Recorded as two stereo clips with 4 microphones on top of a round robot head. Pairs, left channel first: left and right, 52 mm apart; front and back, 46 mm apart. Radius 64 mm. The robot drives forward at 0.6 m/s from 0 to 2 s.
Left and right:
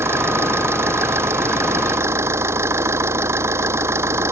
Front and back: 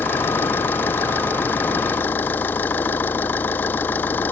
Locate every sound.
0.0 s an engine running: 50° right; by 4.3 s 55° right